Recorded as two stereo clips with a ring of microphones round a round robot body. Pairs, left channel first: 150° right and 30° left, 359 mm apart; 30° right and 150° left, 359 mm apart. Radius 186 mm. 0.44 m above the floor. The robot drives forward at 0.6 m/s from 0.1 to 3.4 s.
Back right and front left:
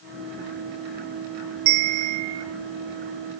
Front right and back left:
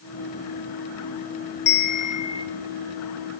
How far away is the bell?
About 1.5 m.